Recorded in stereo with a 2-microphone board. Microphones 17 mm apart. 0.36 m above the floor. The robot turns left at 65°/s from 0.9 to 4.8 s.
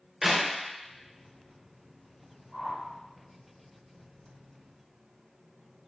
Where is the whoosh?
20° right (ahead or behind), 1.6 m; by 2.8 s 10° right (ahead or behind), 1.6 m.